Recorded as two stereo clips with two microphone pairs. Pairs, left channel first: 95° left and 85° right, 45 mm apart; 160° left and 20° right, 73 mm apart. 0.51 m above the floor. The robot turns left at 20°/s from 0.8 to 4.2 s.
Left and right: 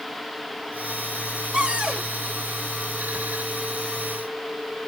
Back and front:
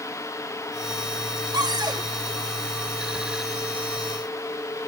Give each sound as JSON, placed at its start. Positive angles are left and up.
{"t": 1.5, "sound": "a cupboard door", "azimuth_deg": -20, "distance_m": 1.5}